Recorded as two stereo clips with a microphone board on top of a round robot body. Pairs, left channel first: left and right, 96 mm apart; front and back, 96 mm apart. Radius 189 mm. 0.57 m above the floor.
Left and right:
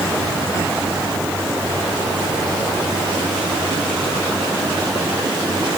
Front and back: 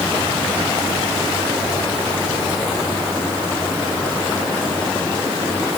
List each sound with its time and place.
Only background noise.